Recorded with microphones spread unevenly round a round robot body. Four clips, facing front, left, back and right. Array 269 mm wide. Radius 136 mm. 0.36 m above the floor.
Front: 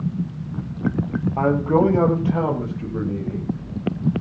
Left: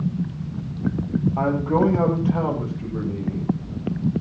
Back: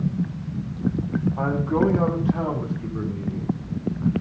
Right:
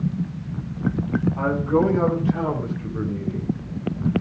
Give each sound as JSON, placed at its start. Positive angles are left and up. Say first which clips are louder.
{"t": 1.4, "sound": "a man speaking", "louder": "left 1 dB, front 6 dB", "azimuth_deg": 25, "distance_m": 7.5}